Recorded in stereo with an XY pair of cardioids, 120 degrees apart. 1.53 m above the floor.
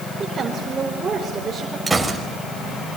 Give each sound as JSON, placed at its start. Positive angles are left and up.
{"t": 0.2, "sound": "a woman speaking", "azimuth_deg": -30, "distance_m": 5.0}
{"t": 1.9, "sound": "a gunshot", "azimuth_deg": -15, "distance_m": 5.5}